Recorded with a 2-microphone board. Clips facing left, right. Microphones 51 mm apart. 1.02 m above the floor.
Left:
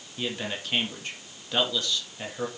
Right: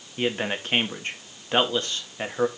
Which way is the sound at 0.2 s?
40° right (ahead or behind).